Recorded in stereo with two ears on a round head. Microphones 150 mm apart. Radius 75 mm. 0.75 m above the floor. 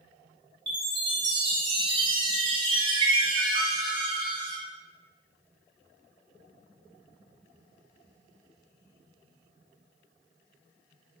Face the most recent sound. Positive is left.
turn(degrees=-30)  # may be behind; listen again after turning